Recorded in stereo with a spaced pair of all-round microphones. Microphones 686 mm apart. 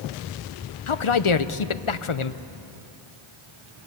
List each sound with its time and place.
0.9 s a man speaking: 50° left (ahead or behind), 0.7 m